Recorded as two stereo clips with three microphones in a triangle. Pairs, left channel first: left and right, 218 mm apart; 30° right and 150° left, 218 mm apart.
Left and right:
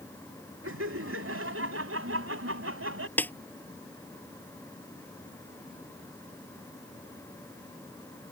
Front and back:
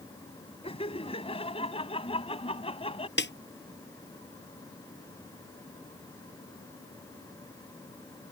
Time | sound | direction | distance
0.6 | laughter | 95° right | ?
3.2 | a snare drum | 5° left | ?